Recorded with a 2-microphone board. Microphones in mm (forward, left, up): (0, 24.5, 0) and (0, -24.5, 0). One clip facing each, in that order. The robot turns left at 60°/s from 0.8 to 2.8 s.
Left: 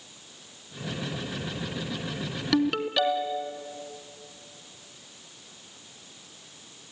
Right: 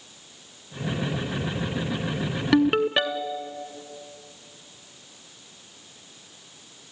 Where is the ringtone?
25° right (ahead or behind), 0.9 m; by 3.5 s 40° right (ahead or behind), 0.9 m.